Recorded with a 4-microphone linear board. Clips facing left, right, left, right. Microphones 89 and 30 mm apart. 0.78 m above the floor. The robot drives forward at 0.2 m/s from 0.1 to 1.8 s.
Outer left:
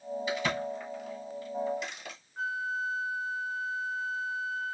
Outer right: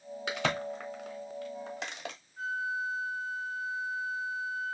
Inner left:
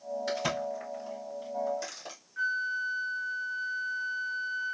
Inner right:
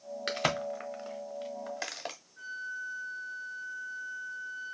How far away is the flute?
About 0.5 m.